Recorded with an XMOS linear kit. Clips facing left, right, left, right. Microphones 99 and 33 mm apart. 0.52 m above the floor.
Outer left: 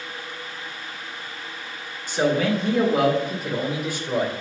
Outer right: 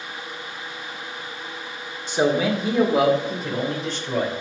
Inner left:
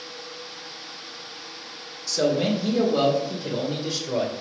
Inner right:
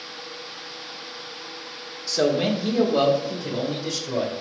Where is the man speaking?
20° right (ahead or behind), 1.5 m; by 4.3 s 15° left (ahead or behind), 2 m.